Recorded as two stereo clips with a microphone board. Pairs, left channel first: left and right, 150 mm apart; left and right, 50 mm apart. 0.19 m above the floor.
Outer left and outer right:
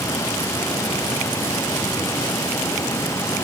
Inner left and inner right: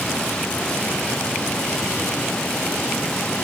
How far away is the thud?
No thud in this recording.